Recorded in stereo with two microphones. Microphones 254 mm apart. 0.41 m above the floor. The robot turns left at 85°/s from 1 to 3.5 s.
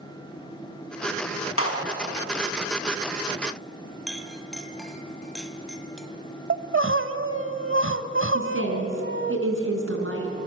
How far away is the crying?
About 0.8 m.